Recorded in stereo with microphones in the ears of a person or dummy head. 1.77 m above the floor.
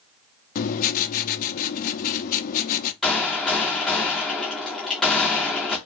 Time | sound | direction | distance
0.6 | writing | 45° left (ahead or behind) | 0.6 m
3.0 | a gunshot | 5° left (ahead or behind) | 2 m